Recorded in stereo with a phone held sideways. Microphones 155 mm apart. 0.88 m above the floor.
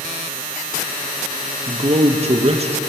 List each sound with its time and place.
1.7 s a man speaking: 45° right (ahead or behind), 0.5 m